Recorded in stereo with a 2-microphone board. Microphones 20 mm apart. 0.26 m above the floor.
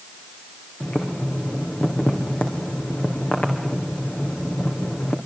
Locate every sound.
0.8 s boiling: 70° left (ahead or behind), 4 m